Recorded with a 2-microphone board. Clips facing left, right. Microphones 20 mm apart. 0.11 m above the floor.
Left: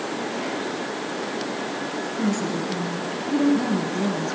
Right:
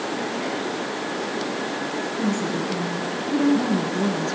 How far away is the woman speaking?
About 1.3 m.